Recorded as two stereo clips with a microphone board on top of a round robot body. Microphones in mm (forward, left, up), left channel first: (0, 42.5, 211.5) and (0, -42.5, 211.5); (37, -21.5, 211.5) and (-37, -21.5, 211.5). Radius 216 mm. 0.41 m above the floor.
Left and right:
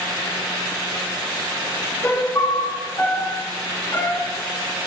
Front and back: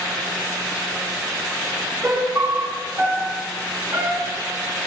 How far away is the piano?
About 1.4 m.